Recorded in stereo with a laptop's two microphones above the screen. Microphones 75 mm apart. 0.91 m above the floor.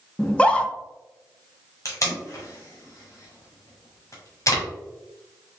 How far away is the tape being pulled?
About 1.1 m.